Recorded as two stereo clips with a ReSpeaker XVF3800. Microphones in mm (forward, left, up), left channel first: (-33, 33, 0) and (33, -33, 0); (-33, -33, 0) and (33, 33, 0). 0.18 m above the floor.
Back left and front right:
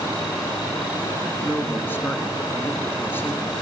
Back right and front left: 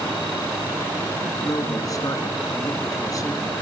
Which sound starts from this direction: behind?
A man speaking, at 1.4 s.